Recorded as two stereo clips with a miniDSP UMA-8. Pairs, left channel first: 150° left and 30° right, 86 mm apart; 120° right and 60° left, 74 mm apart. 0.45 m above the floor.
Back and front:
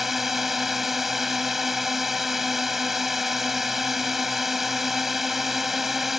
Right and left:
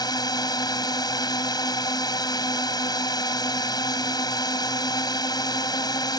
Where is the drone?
120° right.